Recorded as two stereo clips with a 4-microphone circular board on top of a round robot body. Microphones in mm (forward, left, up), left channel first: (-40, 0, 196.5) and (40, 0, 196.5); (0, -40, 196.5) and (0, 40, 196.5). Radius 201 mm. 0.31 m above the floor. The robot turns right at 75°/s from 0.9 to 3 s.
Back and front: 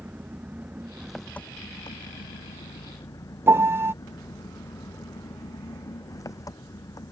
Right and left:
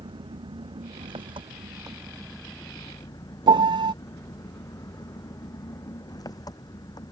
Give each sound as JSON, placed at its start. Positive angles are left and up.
{"t": 0.0, "sound": "an engine running", "azimuth_deg": 70}
{"t": 3.5, "sound": "a piano", "azimuth_deg": 60}